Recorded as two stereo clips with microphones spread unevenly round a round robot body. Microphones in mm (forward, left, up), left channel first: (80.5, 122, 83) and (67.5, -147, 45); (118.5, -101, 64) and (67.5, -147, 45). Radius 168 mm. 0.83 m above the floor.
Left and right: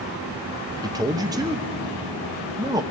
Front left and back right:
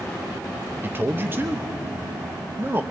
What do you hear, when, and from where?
0.8 s a man speaking: 155° right, 0.8 m